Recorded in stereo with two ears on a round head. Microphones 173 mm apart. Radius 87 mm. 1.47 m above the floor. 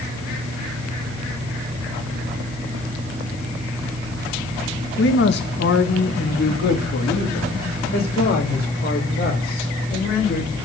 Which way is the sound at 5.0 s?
65° left (ahead or behind).